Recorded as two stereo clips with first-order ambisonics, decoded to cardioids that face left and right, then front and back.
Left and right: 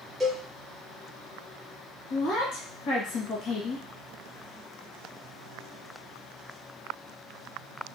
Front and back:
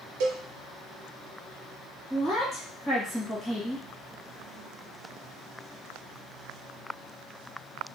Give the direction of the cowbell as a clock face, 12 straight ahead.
6 o'clock.